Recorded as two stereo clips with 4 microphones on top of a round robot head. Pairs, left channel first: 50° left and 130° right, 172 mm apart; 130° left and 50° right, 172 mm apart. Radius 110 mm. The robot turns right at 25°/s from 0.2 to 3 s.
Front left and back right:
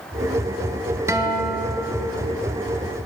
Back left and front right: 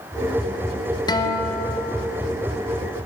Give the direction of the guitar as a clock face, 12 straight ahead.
6 o'clock.